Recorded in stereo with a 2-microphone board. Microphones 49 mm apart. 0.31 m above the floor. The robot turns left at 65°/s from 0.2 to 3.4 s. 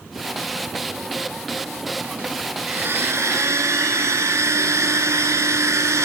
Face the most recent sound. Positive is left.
turn(degrees=-85)